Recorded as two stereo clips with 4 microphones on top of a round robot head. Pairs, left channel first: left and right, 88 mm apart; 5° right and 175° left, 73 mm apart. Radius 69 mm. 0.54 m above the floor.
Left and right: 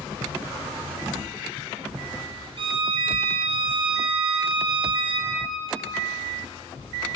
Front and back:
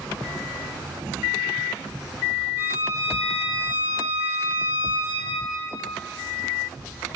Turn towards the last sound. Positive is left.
turn(degrees=-115)